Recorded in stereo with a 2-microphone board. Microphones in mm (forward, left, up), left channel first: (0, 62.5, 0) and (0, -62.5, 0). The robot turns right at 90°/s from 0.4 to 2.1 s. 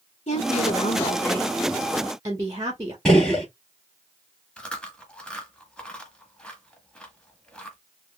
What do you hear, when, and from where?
0.3 s a woman speaking: 60° left, 1.1 m; by 3.0 s 150° right, 1.1 m
3.0 s a gunshot: 5° left (ahead or behind), 1.8 m
4.6 s chewing: 10° left (ahead or behind), 0.9 m